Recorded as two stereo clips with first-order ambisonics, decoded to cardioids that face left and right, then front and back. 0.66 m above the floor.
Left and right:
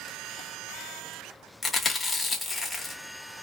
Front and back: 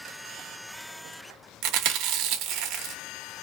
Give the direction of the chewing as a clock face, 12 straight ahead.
6 o'clock.